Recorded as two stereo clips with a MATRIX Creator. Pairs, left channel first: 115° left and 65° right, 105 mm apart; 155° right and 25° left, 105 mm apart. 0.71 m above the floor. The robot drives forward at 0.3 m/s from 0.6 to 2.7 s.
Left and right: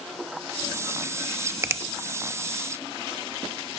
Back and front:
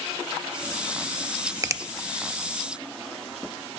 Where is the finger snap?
20° right, 0.5 m; by 1.8 s 25° right, 0.5 m.